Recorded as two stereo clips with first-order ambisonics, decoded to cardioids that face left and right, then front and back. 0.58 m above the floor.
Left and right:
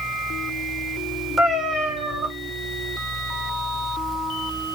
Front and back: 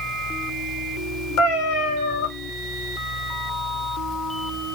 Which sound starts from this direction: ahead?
A cat meowing, at 1.4 s.